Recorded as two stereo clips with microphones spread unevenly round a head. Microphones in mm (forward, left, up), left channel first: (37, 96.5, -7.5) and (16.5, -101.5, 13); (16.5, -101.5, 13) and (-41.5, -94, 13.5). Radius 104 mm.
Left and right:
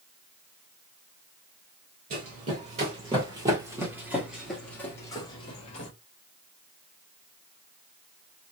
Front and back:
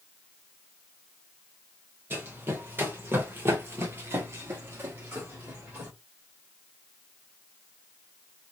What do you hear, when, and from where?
2.1 s running footsteps: 140° right, 2 m; by 5.9 s 130° left, 1.4 m